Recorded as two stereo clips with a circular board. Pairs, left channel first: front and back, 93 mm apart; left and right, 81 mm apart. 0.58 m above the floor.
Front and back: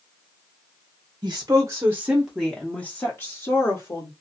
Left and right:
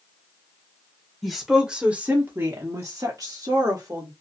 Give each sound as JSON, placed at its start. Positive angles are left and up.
{"t": 1.2, "sound": "a woman speaking", "azimuth_deg": 175, "distance_m": 0.8}